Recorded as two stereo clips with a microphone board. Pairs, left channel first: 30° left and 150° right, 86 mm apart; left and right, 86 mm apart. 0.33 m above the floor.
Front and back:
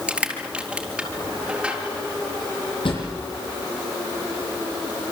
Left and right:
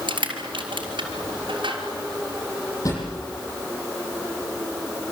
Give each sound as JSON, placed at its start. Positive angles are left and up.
{"t": 0.1, "sound": "crushing", "azimuth_deg": -70, "distance_m": 4.0}
{"t": 2.9, "sound": "a drawer", "azimuth_deg": 40, "distance_m": 8.5}